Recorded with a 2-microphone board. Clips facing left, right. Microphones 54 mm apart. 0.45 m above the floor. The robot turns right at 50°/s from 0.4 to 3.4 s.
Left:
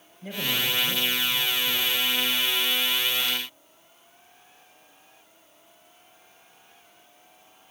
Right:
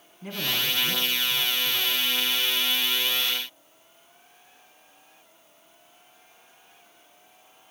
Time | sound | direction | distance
0.2 | a man speaking | 115° right | 3.5 m